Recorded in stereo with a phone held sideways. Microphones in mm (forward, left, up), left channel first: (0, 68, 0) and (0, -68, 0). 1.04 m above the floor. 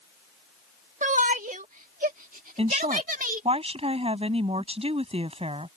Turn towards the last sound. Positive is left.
turn(degrees=-45)  # may be behind; listen again after turning